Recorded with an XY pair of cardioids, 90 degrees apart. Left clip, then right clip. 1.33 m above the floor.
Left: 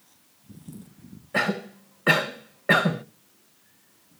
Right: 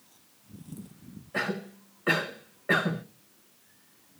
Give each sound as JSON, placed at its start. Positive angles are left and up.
{"t": 1.3, "sound": "a cough", "azimuth_deg": 60, "distance_m": 1.5}